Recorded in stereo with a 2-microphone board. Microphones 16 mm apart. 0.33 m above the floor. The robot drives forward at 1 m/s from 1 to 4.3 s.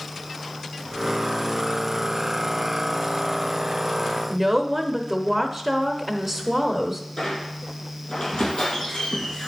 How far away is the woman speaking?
About 0.9 m.